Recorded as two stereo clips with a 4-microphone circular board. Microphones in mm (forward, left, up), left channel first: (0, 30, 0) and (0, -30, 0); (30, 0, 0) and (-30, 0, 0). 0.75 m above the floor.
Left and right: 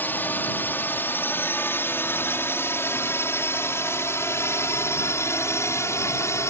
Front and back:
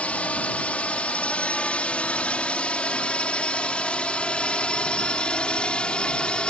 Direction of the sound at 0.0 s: 55° left.